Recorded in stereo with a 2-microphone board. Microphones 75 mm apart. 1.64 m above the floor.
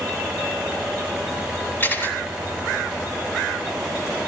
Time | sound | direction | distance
1.8 | a camera shutter | 30° left (ahead or behind) | 4 m